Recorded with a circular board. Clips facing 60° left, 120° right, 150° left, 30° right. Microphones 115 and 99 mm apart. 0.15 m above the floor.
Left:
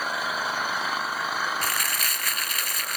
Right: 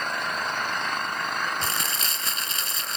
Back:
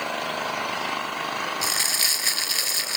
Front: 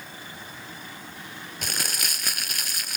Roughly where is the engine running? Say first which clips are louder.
Even, back 14 dB; behind left.